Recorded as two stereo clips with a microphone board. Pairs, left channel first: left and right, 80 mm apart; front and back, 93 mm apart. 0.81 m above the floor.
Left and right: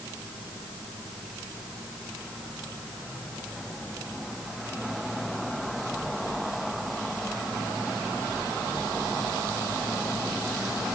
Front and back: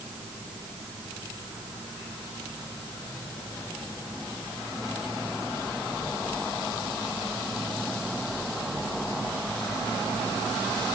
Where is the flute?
I don't hear a flute.